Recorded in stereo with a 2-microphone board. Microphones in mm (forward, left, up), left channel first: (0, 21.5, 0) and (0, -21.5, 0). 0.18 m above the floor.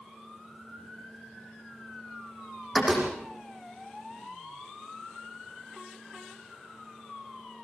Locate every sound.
2.7 s a door slam: centre (ahead or behind), 6 m